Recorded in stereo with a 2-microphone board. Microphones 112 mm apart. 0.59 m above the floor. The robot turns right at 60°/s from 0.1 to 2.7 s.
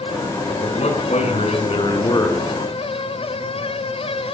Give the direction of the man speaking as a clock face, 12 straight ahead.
10 o'clock.